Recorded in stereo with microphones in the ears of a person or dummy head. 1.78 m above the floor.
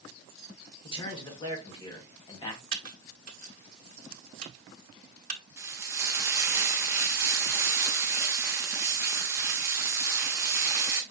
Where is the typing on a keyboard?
50° right (ahead or behind), 0.7 m.